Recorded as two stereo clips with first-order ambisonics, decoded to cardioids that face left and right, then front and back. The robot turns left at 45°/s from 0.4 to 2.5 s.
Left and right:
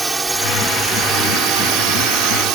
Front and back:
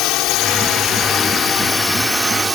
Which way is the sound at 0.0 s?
15° right.